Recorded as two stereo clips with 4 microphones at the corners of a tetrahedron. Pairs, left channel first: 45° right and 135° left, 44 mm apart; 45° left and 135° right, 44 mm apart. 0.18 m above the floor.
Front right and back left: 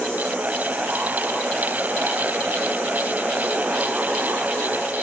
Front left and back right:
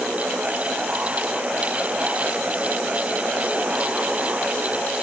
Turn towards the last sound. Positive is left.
No sound to turn to.